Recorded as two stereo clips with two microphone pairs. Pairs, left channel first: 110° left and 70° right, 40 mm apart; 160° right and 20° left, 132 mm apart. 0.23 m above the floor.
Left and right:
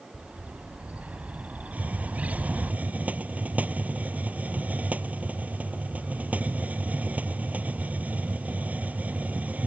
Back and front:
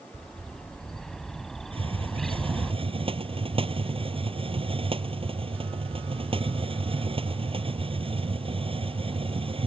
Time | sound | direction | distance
0.1 | a bird | 70° right | ?
1.7 | a hiss | 25° right | ?